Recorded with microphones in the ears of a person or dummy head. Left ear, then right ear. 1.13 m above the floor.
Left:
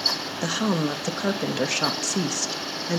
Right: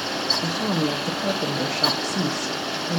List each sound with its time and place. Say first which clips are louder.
0.4 s a woman speaking: right 1 dB; 65° left (ahead or behind), 1.0 m